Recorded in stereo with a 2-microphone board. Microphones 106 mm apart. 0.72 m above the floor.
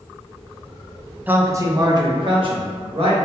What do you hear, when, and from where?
1.3 s a man speaking: 15° right (ahead or behind), 0.6 m; by 3.1 s 60° right (ahead or behind), 1.4 m